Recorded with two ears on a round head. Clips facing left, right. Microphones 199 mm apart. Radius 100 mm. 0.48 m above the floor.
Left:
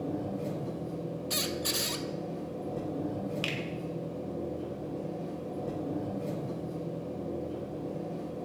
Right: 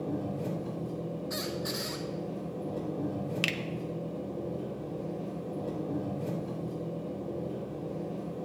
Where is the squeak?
45° left (ahead or behind), 0.9 m.